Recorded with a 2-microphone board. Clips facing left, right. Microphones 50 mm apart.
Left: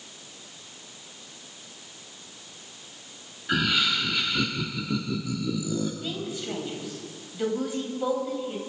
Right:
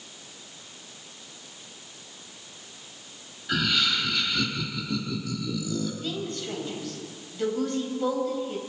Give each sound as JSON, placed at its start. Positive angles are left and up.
{"t": 3.5, "sound": "laughter", "side_deg": 15, "distance_m": 1.2}
{"t": 6.0, "sound": "a woman speaking", "side_deg": 10, "distance_m": 3.5}